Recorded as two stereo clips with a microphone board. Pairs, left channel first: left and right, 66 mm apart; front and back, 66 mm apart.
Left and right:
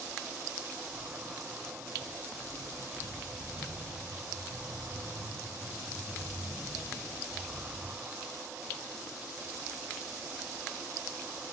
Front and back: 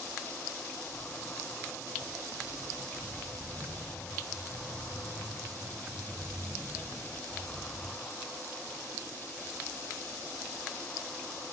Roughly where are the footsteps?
Right.